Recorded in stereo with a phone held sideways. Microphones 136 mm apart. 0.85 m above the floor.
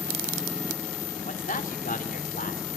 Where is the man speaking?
70° left (ahead or behind), 2.5 m; by 2.7 s 75° left (ahead or behind), 3.5 m.